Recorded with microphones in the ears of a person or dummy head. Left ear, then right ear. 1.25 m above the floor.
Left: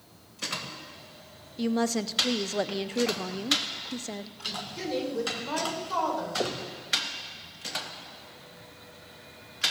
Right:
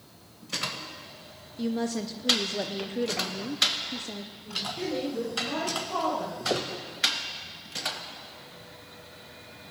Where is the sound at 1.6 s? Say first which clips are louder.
Left 3 dB; 35° left (ahead or behind), 0.6 m.